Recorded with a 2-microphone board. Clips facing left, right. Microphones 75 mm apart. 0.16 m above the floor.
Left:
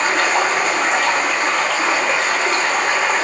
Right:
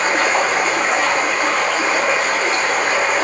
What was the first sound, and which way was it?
Running water, 45° right (ahead or behind).